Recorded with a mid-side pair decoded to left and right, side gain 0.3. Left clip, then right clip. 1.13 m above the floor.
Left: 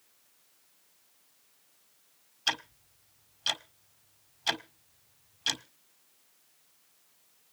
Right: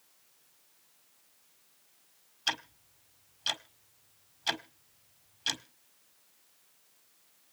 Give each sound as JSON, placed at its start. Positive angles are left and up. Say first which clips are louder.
{"t": 2.5, "sound": "ticking", "louder": "left 2 dB", "azimuth_deg": 25, "distance_m": 1.3}